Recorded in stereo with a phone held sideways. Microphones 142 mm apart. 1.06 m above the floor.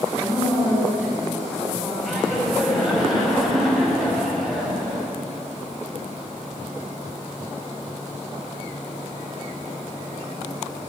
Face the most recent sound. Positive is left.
turn(degrees=0)  # may be behind; listen again after turning